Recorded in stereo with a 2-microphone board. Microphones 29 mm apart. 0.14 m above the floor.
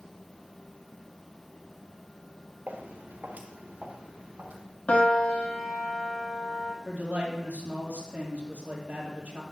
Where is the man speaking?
65° right (ahead or behind), 3 m.